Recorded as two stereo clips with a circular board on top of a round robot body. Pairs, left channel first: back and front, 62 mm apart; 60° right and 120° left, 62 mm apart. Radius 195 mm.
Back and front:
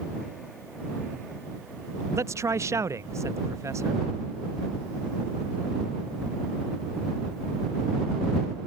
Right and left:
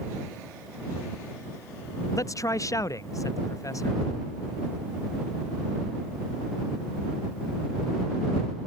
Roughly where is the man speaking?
Ahead right.